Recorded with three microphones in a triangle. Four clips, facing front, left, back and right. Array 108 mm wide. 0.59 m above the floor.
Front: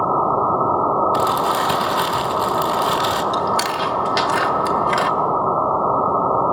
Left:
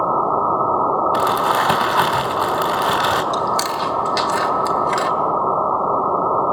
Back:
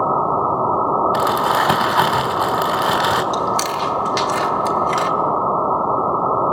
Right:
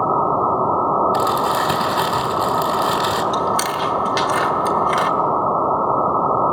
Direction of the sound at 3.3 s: 20° right.